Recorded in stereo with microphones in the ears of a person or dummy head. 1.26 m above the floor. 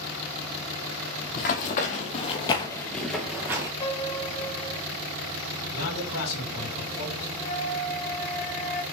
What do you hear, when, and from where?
1.3 s running footsteps: 50° left (ahead or behind), 2 m; by 3.7 s 20° right (ahead or behind), 1.4 m
3.8 s a piano: 20° left (ahead or behind), 4.5 m
5.7 s a man speaking: 80° left, 3.5 m
7.4 s a flute: 40° left (ahead or behind), 1.5 m